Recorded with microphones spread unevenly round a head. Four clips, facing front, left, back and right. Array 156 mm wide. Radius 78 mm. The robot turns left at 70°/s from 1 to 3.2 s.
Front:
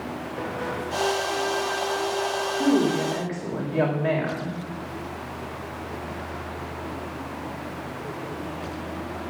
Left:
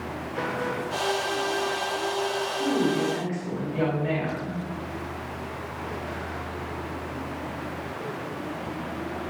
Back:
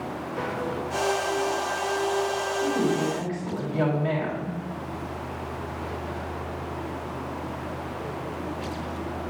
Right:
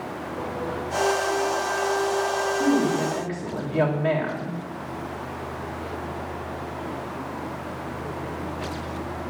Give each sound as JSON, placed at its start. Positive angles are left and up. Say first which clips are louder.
{"t": 2.5, "sound": "a woman speaking", "louder": "right 2 dB, front 5 dB", "azimuth_deg": 0, "distance_m": 3.0}